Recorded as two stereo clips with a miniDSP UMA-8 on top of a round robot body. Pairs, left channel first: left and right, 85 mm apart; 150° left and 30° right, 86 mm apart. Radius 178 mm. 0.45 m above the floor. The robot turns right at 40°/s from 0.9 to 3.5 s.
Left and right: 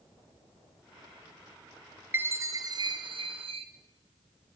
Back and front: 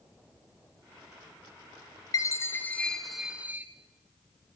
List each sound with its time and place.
2.1 s a chime: 160° right, 1.7 m; by 3.7 s 105° right, 1.7 m